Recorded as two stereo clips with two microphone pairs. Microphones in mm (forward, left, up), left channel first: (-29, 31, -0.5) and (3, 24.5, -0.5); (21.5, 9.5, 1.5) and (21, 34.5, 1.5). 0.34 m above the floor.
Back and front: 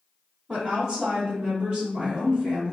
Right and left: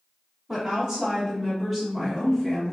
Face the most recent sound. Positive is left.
turn(degrees=-40)